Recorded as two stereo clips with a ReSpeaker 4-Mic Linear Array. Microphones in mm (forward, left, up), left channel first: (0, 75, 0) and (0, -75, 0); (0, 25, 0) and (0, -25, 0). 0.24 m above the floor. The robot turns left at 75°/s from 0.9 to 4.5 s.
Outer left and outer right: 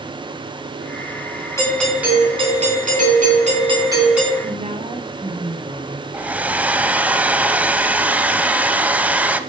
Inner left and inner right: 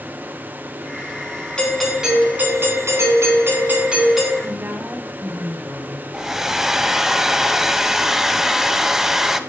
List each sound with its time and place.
1.6 s a doorbell: 25° left, 3 m; by 4.3 s 175° left, 3 m
4.4 s a woman speaking: 40° right (ahead or behind), 1.3 m
6.1 s a hair dryer: 10° right (ahead or behind), 0.5 m